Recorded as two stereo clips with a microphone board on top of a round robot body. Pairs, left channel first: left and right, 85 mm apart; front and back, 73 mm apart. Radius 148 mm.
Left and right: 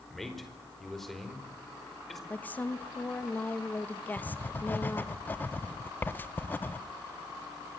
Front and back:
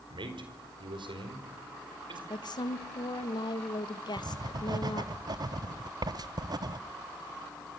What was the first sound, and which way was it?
A man speaking, 175° left.